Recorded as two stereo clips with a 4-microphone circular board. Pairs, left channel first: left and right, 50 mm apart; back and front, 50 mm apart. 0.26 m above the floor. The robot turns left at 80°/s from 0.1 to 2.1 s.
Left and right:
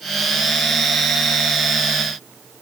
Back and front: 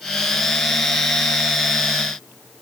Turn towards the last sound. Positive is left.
No sound to turn to.